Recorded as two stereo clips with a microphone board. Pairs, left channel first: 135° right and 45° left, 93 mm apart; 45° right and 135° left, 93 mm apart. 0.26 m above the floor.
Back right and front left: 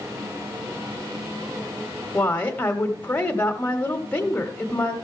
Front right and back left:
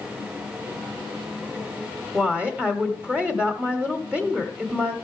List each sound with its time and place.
2.1 s a woman speaking: 175° right, 1.2 m